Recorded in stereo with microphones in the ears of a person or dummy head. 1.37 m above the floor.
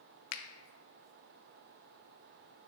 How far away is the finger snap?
About 0.6 m.